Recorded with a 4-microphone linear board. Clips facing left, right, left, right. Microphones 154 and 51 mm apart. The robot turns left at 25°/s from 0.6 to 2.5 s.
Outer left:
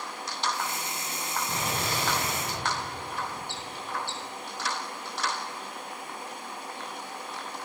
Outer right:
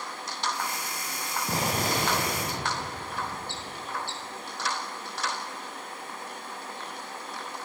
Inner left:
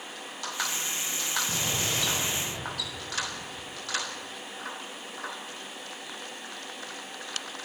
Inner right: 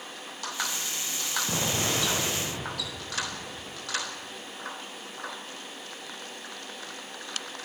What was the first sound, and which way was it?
An explosion, 35° right (ahead or behind).